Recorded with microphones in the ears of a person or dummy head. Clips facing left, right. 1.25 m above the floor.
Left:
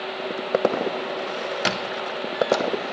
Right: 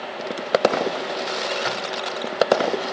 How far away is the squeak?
About 0.5 m.